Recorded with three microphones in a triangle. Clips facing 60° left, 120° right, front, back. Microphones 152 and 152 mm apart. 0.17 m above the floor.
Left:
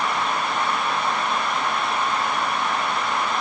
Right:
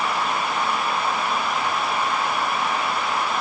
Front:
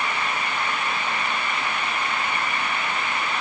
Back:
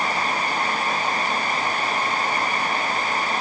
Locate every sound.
Only background noise.